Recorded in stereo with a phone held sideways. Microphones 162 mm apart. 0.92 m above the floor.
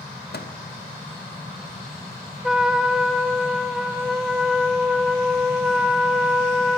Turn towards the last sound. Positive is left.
turn(degrees=-5)  # may be behind; listen again after turning